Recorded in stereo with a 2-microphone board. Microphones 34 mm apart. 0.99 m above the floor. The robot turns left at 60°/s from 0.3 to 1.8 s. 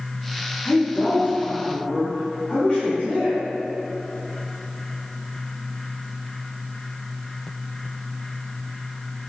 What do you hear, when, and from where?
0.7 s a woman speaking: 105° left, 1.7 m; by 3.4 s 40° left, 1.7 m